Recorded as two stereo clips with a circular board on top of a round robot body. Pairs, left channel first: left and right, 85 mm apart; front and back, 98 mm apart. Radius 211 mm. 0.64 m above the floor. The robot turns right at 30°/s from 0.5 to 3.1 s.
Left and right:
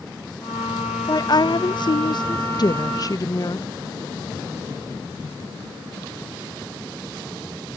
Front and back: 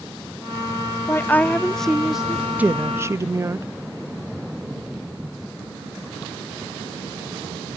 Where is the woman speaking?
60° left; by 3.7 s 125° left.